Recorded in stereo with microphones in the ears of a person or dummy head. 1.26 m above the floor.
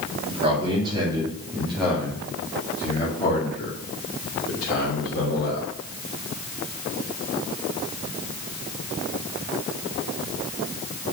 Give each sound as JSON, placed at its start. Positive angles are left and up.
{"t": 0.2, "sound": "a man speaking", "side_deg": -35, "distance_m": 2.0}